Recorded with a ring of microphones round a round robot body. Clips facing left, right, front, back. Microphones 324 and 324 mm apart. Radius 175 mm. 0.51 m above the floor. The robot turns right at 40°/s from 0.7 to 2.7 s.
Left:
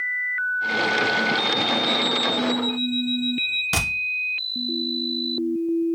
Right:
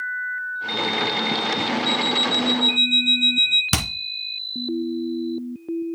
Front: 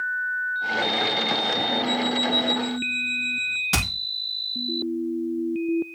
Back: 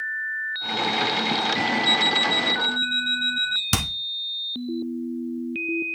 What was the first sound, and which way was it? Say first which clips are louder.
An alarm clock: even, front 4 dB; 155° right.